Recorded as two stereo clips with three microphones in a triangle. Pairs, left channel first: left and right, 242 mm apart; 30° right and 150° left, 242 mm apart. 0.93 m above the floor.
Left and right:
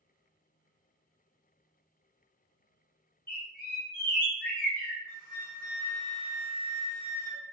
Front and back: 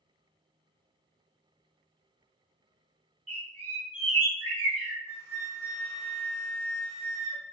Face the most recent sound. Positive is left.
turn(degrees=75)